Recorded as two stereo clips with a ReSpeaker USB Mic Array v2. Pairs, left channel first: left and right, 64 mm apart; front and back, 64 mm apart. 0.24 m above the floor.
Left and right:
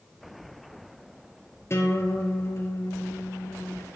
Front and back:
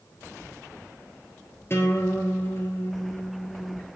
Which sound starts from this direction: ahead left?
A guitar, at 1.7 s.